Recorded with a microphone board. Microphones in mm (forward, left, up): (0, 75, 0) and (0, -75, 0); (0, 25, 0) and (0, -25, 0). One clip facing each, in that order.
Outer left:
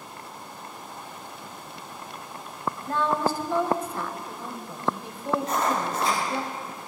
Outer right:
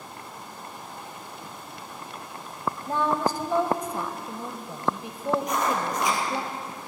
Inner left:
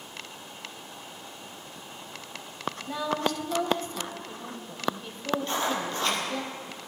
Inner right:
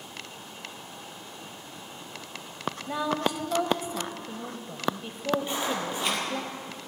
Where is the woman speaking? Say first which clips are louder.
Even, inner right 1 dB; 15° right (ahead or behind), 1.2 m.